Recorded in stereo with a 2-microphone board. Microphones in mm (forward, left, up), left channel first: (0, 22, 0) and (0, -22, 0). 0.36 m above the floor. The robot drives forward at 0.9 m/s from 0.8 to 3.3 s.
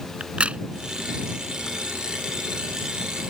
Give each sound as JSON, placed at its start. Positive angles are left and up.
{"t": 0.2, "sound": "a crack", "side_deg": -25}